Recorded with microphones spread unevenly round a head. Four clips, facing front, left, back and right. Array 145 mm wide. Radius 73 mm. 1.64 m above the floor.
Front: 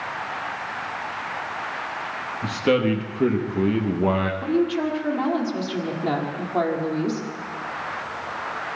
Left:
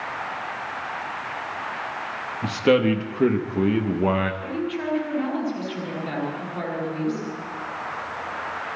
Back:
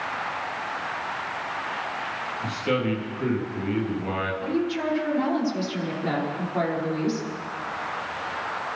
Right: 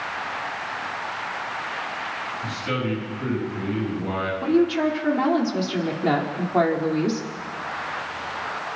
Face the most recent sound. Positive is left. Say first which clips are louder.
# right 8 dB, front 4 dB
turn(degrees=-65)